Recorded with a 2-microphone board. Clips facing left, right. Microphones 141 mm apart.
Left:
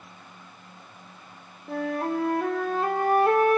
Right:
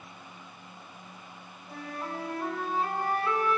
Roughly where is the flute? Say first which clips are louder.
Left 11 dB; left.